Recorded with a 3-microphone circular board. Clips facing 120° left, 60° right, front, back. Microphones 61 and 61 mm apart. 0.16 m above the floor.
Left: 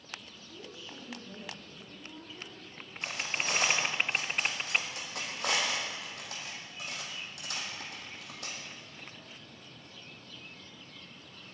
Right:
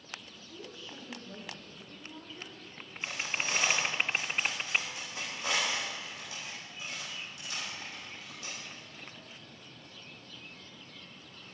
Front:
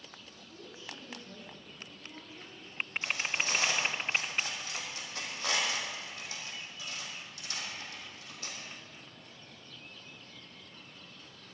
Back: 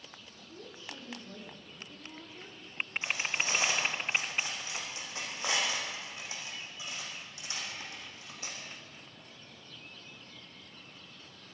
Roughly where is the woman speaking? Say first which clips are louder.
Right 1 dB, back 1 dB; behind right.